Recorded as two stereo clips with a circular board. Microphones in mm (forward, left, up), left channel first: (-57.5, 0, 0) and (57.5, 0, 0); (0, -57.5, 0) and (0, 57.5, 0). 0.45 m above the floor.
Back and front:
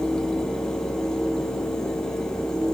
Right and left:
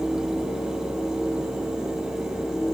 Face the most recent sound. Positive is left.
No sound to turn to.